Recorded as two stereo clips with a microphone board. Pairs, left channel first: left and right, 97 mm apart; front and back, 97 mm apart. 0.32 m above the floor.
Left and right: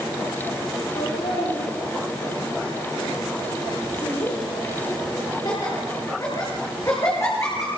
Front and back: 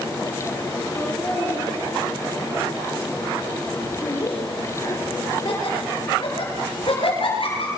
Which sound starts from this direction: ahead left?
Laughter, at 0.9 s.